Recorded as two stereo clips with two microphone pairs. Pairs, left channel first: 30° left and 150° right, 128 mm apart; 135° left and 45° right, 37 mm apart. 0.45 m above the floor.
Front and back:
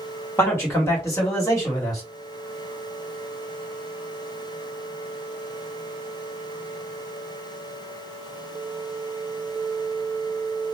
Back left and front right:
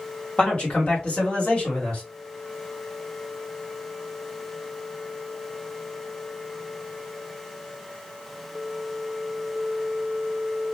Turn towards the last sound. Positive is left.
turn(degrees=90)